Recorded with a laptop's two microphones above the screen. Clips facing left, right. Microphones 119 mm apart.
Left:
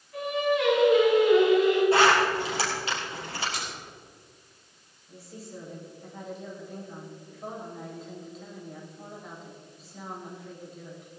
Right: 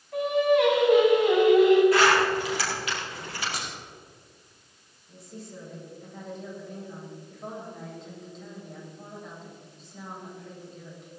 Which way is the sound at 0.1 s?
80° right.